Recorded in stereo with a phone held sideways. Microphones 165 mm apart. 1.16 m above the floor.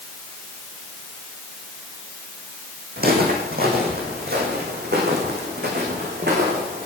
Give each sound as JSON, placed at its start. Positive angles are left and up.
{"t": 3.0, "sound": "footsteps", "side_deg": -65, "distance_m": 4.5}